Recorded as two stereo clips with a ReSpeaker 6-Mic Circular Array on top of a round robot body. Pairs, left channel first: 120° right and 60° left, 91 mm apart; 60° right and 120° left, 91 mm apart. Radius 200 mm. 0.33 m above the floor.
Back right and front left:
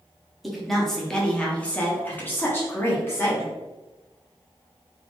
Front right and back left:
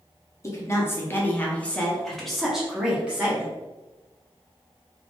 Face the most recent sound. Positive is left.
turn(degrees=-175)